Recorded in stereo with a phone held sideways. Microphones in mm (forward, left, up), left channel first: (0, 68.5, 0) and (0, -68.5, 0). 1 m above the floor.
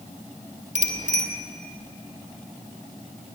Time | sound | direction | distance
0.8 | a bicycle bell | 55° right (ahead or behind) | 2.5 m